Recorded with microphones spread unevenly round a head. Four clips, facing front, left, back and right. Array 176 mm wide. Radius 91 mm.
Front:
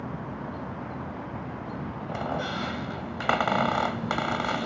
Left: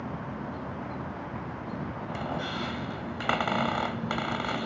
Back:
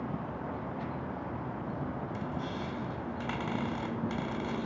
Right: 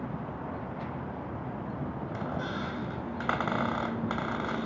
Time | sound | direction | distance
2.1 | a squeak | 30° left | ?